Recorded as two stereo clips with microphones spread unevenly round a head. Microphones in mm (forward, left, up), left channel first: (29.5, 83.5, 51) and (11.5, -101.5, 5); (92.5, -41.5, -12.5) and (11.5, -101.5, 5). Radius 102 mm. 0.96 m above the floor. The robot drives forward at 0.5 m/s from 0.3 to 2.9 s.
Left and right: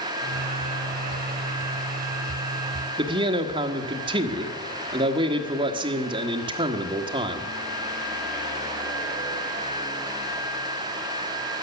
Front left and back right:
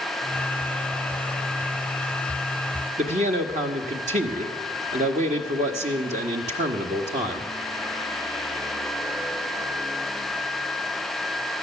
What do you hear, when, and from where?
3.0 s a man speaking: 160° right, 1.2 m